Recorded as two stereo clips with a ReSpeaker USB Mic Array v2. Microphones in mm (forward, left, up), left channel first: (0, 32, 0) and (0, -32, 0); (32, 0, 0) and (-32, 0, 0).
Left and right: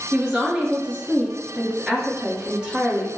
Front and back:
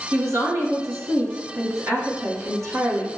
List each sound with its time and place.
0.1 s a woman speaking: 160° right, 1.9 m